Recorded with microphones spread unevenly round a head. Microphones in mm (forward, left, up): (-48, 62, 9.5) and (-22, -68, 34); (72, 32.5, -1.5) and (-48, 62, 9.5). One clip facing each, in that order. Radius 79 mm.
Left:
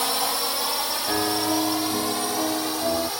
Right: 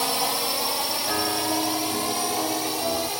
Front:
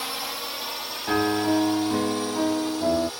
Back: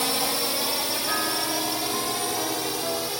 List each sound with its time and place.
0.0 s a drone: 160° right; by 3.2 s 150° right
1.1 s a piano: 25° left